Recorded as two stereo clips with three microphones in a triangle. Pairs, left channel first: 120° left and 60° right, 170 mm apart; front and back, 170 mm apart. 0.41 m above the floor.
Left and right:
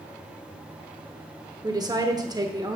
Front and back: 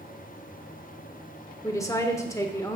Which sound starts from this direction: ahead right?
A woman speaking, at 1.6 s.